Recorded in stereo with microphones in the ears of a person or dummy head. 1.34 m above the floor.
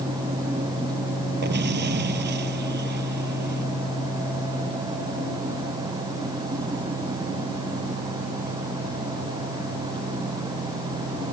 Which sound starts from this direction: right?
An explosion, at 1.4 s.